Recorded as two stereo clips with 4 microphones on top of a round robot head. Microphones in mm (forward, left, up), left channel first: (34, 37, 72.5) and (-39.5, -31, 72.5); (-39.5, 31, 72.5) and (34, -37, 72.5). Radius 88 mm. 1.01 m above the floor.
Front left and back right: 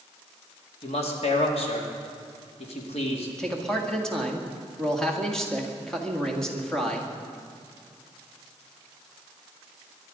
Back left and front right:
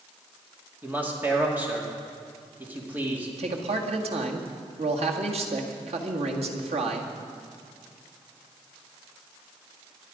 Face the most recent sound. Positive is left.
turn(degrees=-40)